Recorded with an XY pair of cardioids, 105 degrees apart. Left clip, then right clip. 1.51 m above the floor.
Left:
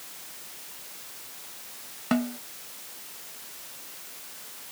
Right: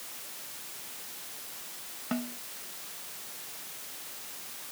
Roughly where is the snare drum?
Ahead left.